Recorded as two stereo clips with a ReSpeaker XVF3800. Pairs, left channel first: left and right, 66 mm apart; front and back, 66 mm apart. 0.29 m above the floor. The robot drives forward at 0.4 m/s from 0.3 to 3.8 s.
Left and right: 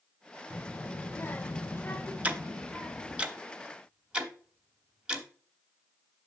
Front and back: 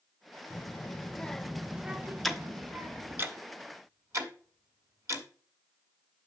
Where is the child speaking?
40° left, 0.7 m; by 3.2 s 155° left, 0.9 m.